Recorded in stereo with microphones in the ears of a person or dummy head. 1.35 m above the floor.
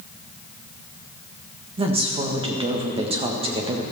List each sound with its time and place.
1.8 s a woman speaking: 25° right (ahead or behind), 1.4 m